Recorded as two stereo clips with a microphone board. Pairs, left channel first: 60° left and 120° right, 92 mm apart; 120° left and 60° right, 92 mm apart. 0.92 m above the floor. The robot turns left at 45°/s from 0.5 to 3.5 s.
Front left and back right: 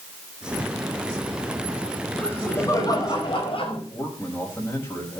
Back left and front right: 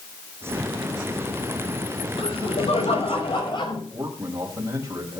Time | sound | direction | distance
2.2 | laughter | 140° left | 5 m
3.9 | a man speaking | straight ahead | 5 m